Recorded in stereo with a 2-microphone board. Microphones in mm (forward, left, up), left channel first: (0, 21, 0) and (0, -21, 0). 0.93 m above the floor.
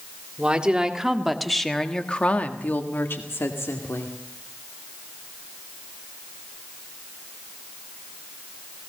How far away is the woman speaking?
About 2 m.